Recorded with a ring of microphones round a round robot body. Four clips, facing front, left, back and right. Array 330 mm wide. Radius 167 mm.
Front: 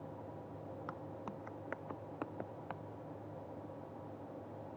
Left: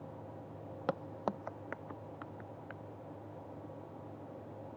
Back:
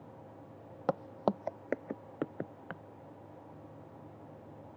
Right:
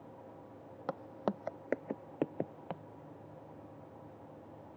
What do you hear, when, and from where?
0.9 s footsteps: 165° left; by 2.8 s 115° right